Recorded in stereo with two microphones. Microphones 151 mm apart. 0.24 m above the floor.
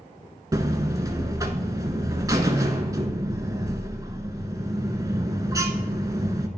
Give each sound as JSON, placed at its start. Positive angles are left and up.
{"t": 0.5, "sound": "a buzzer", "side_deg": -25, "distance_m": 0.7}